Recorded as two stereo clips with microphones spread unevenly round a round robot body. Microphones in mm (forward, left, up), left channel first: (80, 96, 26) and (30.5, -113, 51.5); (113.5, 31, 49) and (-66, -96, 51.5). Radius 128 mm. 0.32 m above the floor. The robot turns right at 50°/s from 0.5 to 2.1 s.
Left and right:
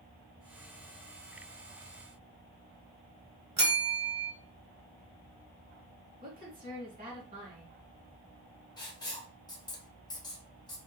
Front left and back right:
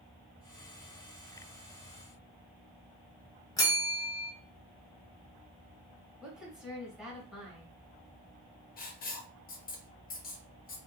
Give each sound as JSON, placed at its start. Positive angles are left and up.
{"t": 3.6, "sound": "a bell", "azimuth_deg": -40, "distance_m": 1.0}
{"t": 6.2, "sound": "a woman speaking", "azimuth_deg": -60, "distance_m": 1.7}
{"t": 8.8, "sound": "writing", "azimuth_deg": 25, "distance_m": 1.1}